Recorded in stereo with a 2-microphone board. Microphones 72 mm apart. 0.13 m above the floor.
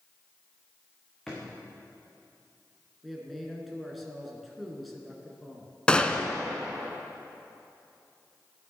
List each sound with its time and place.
1.3 s a drawer: 5° left (ahead or behind), 4 m
3.0 s a man speaking: centre (ahead or behind), 2 m
5.9 s a gunshot: 15° left (ahead or behind), 0.7 m